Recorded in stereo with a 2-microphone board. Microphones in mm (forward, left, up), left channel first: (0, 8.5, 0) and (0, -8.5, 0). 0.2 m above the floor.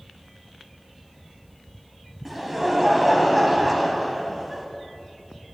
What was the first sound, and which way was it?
Laughter, 10° right (ahead or behind).